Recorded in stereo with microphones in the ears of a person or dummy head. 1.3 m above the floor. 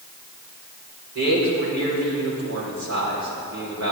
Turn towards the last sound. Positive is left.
turn(degrees=-80)